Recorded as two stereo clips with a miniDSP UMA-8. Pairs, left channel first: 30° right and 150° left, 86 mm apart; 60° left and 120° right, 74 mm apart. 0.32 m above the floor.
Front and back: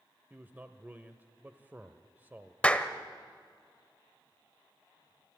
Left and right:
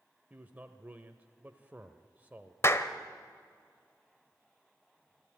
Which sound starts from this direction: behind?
A man speaking, at 0.3 s.